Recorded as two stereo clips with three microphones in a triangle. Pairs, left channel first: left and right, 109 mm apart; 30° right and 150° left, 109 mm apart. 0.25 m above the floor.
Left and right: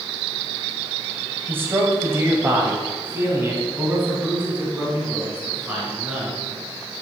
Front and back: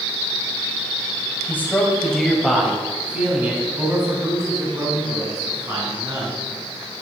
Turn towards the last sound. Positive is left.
turn(degrees=-160)